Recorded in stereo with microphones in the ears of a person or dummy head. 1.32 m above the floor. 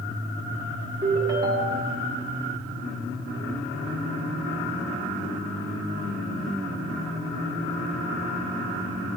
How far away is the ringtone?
About 1.5 m.